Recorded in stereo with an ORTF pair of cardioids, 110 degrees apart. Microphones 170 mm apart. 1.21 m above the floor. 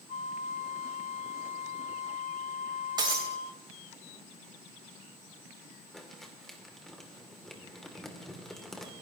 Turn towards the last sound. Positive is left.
turn(degrees=0)